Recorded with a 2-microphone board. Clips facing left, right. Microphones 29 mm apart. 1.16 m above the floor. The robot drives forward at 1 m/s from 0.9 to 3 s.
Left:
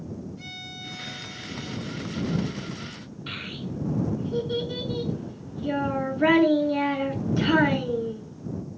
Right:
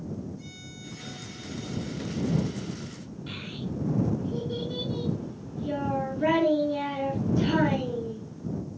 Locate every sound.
0.4 s a violin: 55° left (ahead or behind), 0.7 m; by 2.5 s 15° left (ahead or behind), 2 m
3.3 s a child speaking: 60° left (ahead or behind), 7 m